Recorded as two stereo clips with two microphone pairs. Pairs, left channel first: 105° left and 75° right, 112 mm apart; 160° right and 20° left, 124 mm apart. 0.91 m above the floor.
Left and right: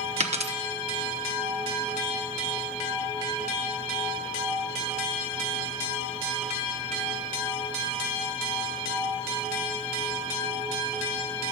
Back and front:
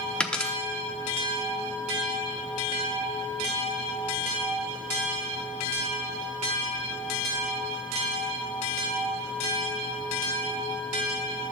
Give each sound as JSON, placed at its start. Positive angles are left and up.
{"t": 0.2, "sound": "a dropped coin", "azimuth_deg": -80, "distance_m": 0.8}